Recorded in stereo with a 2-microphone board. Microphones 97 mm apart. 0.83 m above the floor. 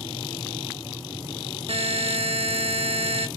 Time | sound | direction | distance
1.7 | a buzzer | 75° right (ahead or behind) | 0.7 m